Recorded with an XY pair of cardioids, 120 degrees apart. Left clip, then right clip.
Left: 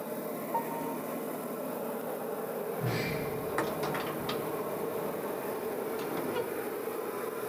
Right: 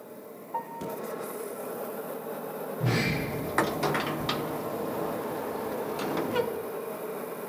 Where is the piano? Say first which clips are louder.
Right 1 dB; straight ahead, 0.8 m.